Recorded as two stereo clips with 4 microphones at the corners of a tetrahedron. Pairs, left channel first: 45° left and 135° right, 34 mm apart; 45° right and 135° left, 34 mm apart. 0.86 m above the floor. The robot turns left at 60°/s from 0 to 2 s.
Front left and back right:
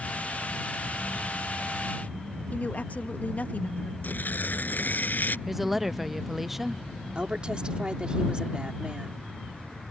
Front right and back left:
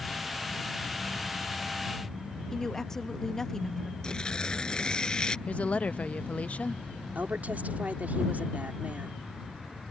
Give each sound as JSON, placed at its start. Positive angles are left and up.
{"t": 2.5, "sound": "a woman speaking", "azimuth_deg": 30}
{"t": 4.0, "sound": "tearing paper", "azimuth_deg": 20}
{"t": 5.5, "sound": "a woman speaking", "azimuth_deg": -60}
{"t": 7.2, "sound": "a woman speaking", "azimuth_deg": 165}